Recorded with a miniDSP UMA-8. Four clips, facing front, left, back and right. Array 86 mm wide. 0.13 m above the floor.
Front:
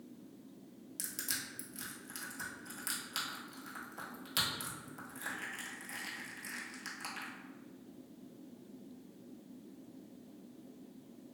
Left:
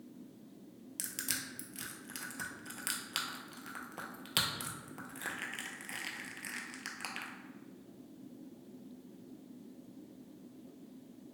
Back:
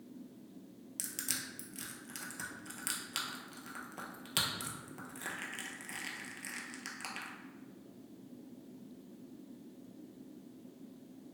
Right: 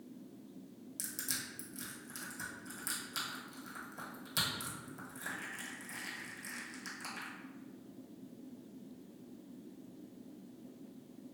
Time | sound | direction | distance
1.0 | crushing | 110° left | 0.6 m